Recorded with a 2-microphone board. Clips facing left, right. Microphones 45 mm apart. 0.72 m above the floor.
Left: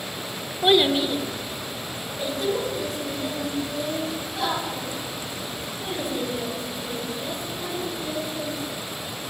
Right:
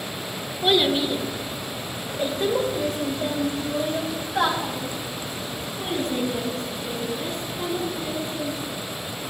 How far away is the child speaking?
About 1.2 m.